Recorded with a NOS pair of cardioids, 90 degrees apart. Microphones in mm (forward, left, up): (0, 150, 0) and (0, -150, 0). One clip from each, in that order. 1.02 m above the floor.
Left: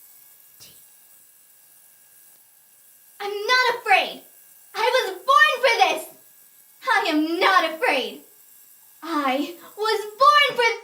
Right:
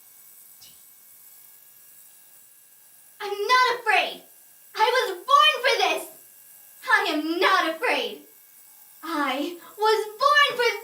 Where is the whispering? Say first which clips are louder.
Left 3 dB; 50° left, 0.6 m.